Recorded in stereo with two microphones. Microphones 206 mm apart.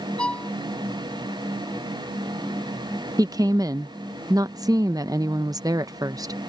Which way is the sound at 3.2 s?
20° right (ahead or behind).